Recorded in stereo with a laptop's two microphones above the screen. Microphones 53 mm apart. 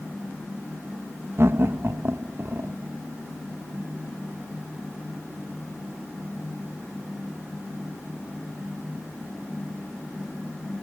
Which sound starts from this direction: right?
Laughter, at 1.4 s.